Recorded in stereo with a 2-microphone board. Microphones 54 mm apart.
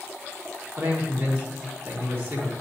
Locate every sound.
0.8 s a man speaking: 50° right (ahead or behind), 3 m